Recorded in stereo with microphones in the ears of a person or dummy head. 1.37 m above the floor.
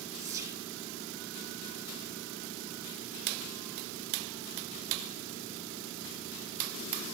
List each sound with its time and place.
0.2 s whispering: 15° right (ahead or behind), 1.8 m